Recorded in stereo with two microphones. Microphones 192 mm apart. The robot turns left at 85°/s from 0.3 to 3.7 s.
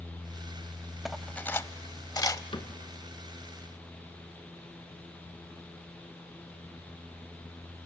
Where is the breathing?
No breathing in this recording.